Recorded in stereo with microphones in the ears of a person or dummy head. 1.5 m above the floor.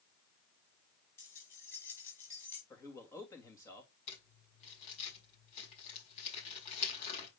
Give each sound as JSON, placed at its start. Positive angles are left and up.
{"t": 1.2, "sound": "keys jangling", "side_deg": 15, "distance_m": 5.0}
{"t": 2.7, "sound": "a man speaking", "side_deg": 20, "distance_m": 2.5}
{"t": 4.1, "sound": "crumpling", "side_deg": 35, "distance_m": 5.5}